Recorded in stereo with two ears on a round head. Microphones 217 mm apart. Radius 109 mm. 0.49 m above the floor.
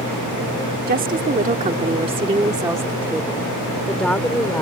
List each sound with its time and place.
0.9 s a woman speaking: 40° right (ahead or behind); by 4.6 s 10° left (ahead or behind)